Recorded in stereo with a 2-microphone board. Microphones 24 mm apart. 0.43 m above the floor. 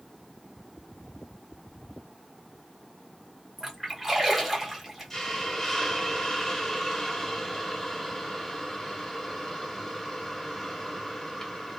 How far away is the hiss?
About 1.1 m.